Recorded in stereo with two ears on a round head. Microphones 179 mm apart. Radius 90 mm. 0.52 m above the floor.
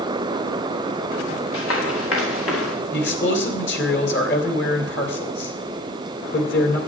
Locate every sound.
1.5 s running footsteps: 70° left (ahead or behind), 4.5 m; by 2.8 s 75° left (ahead or behind), 4 m
2.9 s a man speaking: 60° left (ahead or behind), 2.5 m